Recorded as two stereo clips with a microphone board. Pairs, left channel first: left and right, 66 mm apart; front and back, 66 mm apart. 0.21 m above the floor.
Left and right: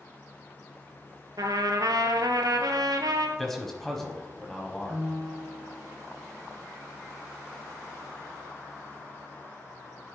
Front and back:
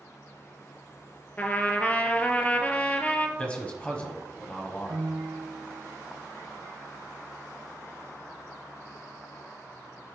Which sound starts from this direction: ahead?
A man speaking, at 3.4 s.